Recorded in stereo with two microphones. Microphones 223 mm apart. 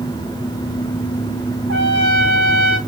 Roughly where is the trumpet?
Right.